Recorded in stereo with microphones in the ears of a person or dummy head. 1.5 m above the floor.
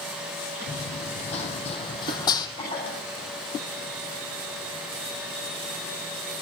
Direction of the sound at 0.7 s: 40° left (ahead or behind).